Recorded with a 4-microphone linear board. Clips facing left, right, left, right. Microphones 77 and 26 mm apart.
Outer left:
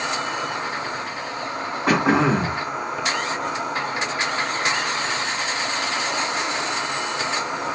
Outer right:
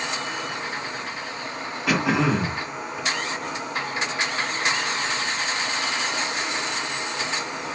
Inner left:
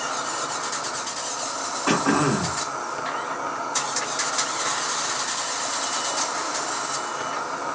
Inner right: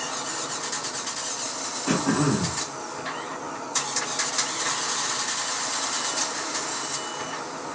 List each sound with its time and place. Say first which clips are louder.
0.0 s an insect: outer left 4 dB, inner left 4 dB; 60° left (ahead or behind), 0.9 m
1.9 s throat clearing: outer left 4 dB, inner left 3 dB; 35° left (ahead or behind), 0.6 m